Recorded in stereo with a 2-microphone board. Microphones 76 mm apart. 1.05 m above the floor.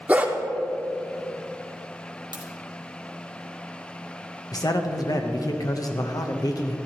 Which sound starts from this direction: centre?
A dog barking, at 0.1 s.